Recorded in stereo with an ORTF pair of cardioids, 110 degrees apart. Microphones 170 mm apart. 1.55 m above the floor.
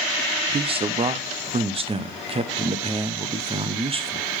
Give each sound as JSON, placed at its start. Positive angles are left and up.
{"t": 0.5, "sound": "a man speaking", "azimuth_deg": -30, "distance_m": 0.9}